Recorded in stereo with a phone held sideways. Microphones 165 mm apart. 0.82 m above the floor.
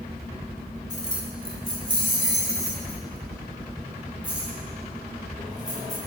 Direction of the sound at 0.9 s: 50° right (ahead or behind).